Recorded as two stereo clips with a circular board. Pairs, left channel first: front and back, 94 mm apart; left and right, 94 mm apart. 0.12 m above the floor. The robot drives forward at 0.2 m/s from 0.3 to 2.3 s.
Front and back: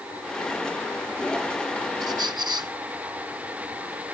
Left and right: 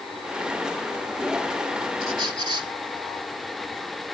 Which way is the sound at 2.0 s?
135° right.